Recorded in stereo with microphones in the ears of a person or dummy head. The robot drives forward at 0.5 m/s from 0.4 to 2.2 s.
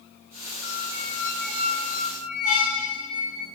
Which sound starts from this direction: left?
A squeak, at 0.6 s.